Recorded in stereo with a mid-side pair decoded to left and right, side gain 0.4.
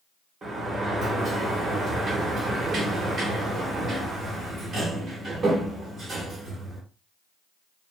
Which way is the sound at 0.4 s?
50° right.